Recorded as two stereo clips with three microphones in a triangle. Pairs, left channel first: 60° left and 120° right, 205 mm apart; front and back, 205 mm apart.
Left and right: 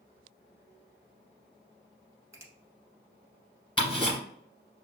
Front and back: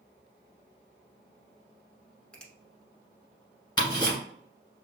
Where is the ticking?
35° left, 1.8 m.